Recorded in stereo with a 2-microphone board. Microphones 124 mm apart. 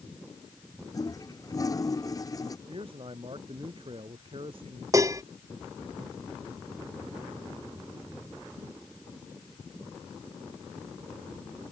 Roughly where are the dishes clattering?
Right.